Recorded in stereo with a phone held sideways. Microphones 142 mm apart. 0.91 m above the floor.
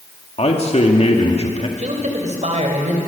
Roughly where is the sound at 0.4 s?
Left.